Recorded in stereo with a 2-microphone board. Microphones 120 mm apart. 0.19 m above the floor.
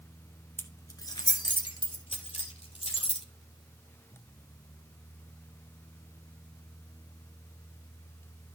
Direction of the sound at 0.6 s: 20° left (ahead or behind).